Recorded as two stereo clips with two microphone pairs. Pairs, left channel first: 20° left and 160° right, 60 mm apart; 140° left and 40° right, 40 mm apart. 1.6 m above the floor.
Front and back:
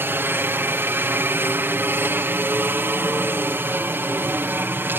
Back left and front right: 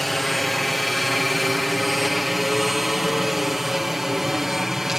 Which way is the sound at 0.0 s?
135° right.